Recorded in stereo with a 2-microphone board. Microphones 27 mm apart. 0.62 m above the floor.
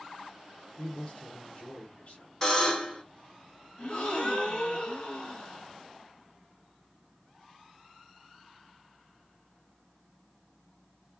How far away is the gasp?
About 1.8 m.